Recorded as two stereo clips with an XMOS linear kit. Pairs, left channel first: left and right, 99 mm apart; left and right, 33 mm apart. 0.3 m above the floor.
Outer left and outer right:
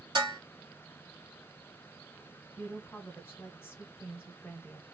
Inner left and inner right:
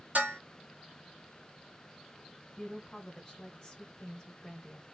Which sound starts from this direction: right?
Dishes clattering, at 0.1 s.